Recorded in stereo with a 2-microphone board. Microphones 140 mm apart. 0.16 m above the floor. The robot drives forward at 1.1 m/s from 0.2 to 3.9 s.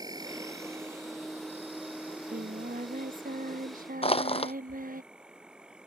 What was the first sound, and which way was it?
An insect, 30° right (ahead or behind).